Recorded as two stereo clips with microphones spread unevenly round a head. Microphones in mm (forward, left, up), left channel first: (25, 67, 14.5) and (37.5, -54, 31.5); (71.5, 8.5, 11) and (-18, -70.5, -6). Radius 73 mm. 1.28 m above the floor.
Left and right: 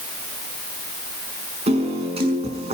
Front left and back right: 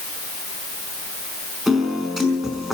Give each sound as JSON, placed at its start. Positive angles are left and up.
{"t": 1.7, "sound": "a piano", "azimuth_deg": -50, "distance_m": 5.5}